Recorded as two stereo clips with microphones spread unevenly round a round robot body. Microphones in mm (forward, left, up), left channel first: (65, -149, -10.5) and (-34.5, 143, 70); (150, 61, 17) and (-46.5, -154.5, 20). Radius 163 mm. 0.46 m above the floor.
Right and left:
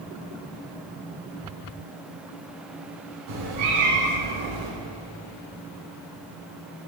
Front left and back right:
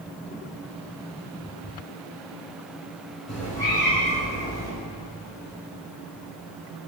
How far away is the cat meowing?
About 3 m.